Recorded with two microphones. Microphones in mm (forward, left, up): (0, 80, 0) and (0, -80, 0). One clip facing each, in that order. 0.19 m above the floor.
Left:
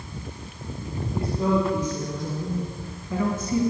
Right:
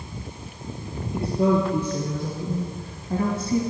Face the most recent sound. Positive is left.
turn(degrees=-25)  # may be behind; listen again after turning